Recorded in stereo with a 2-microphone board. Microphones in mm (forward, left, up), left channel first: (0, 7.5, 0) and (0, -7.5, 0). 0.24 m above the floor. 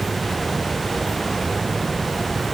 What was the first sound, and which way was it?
Only background noise.